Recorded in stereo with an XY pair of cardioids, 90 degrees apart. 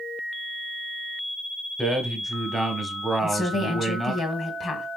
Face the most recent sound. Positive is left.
turn(degrees=50)